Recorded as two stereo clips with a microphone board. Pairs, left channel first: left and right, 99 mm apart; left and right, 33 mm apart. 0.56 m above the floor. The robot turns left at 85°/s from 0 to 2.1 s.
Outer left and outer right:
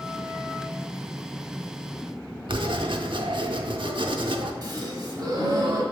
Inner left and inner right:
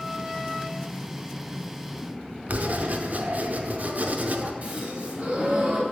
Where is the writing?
55° right (ahead or behind), 0.5 m.